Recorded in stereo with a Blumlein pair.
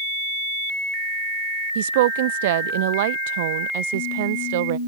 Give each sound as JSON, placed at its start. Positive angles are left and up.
{"t": 1.8, "sound": "a woman speaking", "azimuth_deg": -55}